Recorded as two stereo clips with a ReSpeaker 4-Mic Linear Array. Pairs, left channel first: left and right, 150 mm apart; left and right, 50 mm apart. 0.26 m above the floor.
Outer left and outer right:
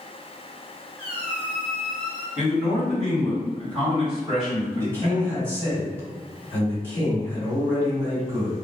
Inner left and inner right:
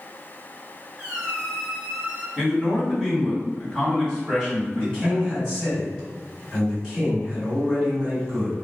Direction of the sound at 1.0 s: Centre (ahead or behind).